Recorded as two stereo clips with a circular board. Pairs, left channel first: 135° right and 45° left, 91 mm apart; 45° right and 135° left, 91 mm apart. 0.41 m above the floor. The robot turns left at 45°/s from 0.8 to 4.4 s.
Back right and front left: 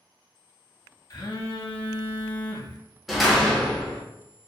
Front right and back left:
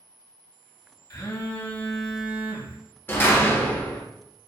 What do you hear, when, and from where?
1.1 s a phone buzzing: 90° right, 0.5 m; by 2.8 s 165° right, 0.5 m
3.1 s a door slam: 40° right, 0.5 m; by 4.0 s 80° right, 0.5 m